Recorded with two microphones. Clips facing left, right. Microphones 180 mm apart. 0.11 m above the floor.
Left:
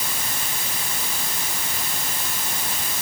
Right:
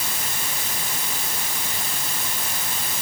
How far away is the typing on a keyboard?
I don't hear typing on a keyboard.